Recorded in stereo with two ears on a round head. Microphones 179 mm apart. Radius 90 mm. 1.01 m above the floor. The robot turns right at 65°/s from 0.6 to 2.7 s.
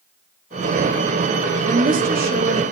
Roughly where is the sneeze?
I don't hear a sneeze.